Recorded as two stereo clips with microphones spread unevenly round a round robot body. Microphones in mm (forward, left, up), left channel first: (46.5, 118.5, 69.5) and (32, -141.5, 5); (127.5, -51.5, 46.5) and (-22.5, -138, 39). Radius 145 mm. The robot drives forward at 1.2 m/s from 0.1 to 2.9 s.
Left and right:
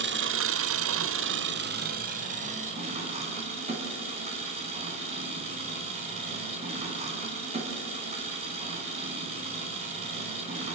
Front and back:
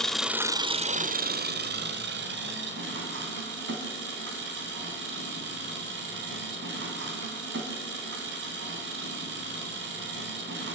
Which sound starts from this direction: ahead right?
An engine running, at 0.0 s.